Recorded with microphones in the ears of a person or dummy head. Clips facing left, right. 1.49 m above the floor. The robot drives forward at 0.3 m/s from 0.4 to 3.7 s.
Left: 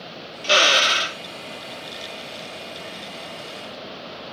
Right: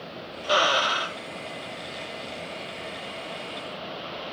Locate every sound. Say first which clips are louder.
0.4 s a drill: left 3 dB; 25° left (ahead or behind); by 1.2 s 20° left (ahead or behind)